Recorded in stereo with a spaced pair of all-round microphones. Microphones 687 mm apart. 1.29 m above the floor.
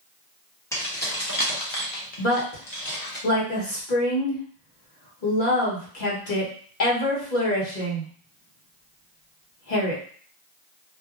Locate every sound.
0.7 s keys jangling: 5° left (ahead or behind), 0.9 m; by 3.2 s 70° left (ahead or behind), 1.3 m
2.2 s a woman speaking: 85° left, 1.4 m